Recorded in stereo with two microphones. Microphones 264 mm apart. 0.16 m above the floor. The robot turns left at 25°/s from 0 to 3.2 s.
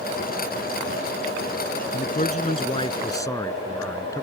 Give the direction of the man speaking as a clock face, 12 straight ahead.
10 o'clock.